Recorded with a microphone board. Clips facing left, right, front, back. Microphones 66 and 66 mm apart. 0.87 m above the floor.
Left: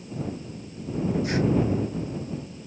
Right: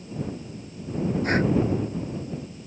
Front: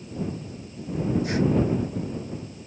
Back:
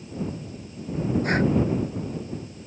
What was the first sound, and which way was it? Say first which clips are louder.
Breathing: right 3 dB, back 2 dB; 140° right.